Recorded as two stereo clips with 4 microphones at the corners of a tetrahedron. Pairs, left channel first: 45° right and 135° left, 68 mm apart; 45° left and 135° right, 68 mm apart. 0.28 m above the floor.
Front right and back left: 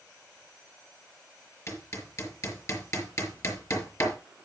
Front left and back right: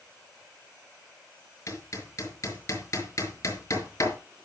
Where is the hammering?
Straight ahead, 4.5 m.